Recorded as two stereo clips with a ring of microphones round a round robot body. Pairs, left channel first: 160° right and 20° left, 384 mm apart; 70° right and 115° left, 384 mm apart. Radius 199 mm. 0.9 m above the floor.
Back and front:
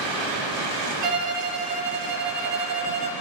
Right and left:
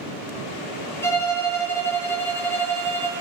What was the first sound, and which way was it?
A violin, 15° left.